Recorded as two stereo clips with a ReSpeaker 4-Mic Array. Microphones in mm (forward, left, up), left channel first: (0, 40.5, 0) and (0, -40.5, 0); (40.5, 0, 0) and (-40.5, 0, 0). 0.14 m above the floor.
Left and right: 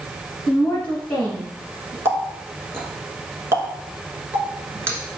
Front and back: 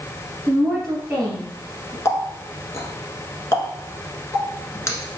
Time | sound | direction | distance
0.5 | a woman speaking | 155° left | 1.5 m
2.0 | a running tap | 40° right | 1.0 m